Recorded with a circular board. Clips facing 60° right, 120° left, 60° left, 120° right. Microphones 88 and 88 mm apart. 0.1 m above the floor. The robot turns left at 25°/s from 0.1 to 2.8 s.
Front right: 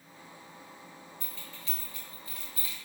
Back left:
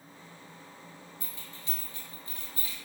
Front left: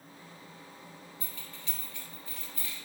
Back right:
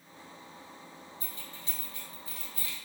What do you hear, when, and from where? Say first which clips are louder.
1.2 s keys jangling: even, back right 1 dB; 170° right, 1.4 m; by 2.8 s 155° left, 1.4 m